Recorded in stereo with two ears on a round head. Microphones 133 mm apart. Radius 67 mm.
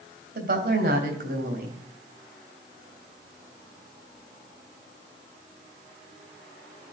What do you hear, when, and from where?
0.3 s a woman speaking: 65° right (ahead or behind), 3 m